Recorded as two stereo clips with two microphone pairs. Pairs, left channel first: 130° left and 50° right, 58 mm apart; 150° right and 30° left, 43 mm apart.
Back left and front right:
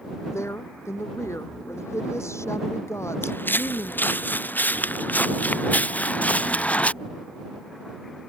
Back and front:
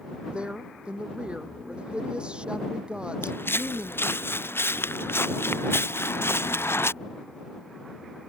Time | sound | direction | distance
0.3 | a woman speaking | 95° left | ?
3.2 | footsteps | 175° right | ?